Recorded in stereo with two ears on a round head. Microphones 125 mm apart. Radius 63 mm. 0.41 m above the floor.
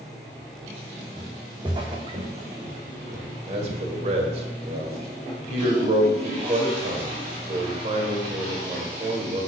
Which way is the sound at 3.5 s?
50° right (ahead or behind).